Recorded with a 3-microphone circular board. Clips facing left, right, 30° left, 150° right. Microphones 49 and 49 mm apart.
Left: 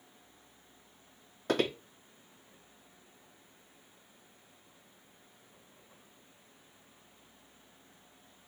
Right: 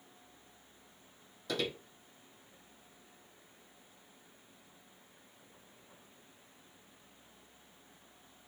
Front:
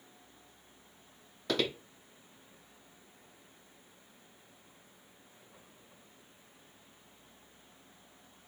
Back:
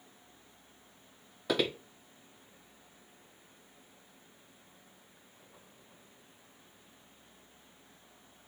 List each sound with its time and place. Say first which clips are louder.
1.5 s footsteps: left 6 dB, back 2 dB; 130° left, 0.5 m